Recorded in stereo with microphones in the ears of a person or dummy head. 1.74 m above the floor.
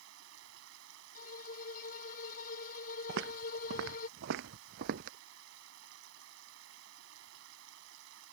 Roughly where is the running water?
Right.